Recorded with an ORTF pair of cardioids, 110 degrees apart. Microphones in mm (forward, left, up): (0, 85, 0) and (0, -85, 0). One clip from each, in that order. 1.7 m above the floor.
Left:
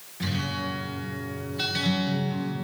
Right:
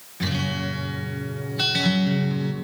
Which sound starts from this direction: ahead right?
A guitar, at 0.2 s.